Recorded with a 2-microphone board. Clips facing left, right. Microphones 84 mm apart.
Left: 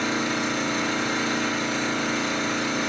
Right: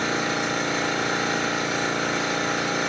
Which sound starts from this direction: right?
An engine running, at 0.0 s.